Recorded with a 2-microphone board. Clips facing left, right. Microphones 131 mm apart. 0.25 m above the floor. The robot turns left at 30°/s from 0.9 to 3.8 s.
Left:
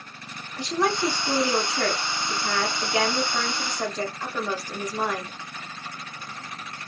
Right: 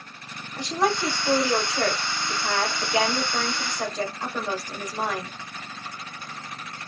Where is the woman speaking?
20° right (ahead or behind), 1.5 m.